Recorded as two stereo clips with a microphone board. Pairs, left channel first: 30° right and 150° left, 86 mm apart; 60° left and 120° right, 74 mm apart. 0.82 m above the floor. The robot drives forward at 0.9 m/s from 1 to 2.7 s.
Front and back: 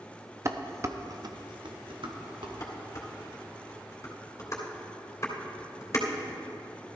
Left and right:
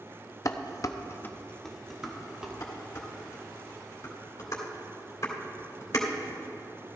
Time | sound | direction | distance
0.5 | dishes clattering | 100° left | 0.6 m
2.6 | dishes clattering | 20° left | 2 m